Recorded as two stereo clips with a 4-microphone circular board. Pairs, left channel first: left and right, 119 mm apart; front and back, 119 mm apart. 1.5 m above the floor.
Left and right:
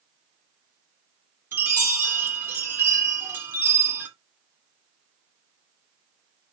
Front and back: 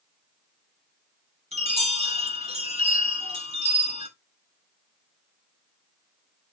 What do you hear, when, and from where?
1.5 s a chime: 160° right, 2.5 m